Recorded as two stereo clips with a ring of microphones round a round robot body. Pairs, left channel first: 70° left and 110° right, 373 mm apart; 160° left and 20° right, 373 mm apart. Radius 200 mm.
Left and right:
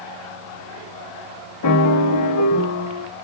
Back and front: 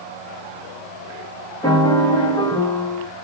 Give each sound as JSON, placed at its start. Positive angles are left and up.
{"t": 1.6, "sound": "a piano", "azimuth_deg": 80, "distance_m": 1.3}